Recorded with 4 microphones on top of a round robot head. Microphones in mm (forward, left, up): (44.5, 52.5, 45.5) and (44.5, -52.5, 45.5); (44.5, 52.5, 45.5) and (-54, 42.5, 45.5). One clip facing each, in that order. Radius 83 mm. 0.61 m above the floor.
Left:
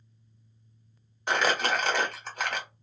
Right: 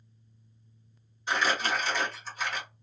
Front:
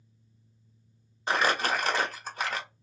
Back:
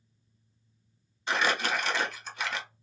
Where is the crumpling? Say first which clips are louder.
Left 2 dB, front 2 dB; 55° left, 1.1 m.